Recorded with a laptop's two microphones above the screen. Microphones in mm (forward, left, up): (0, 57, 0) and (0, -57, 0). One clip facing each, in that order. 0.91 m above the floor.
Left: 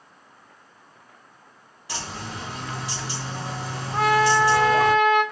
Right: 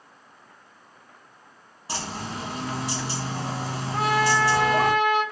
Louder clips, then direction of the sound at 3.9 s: Left 4 dB; 20° left (ahead or behind).